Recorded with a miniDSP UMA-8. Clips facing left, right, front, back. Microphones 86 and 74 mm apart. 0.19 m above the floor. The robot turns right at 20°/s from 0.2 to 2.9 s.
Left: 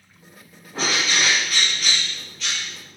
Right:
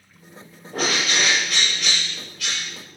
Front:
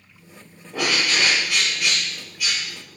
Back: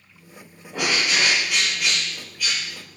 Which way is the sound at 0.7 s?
110° right.